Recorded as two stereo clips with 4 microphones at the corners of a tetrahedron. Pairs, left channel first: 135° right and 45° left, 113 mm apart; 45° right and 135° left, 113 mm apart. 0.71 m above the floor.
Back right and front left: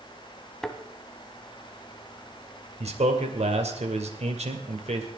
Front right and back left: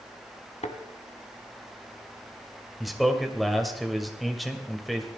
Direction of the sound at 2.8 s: 45° left.